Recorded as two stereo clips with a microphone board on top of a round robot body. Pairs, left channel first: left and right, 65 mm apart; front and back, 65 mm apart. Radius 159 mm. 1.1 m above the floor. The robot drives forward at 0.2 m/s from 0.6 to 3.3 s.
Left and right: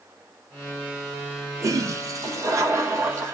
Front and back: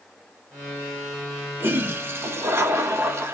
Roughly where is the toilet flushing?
Behind right.